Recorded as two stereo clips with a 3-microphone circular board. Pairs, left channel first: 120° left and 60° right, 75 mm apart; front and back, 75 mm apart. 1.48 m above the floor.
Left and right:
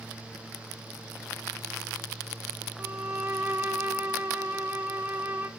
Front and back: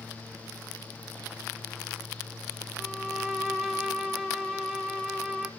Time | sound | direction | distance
2.8 | a violin | 95° right | 1.2 m